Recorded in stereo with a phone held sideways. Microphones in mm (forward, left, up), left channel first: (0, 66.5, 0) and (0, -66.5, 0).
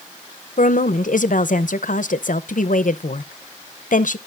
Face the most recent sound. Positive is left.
turn(degrees=70)  # may be behind; listen again after turning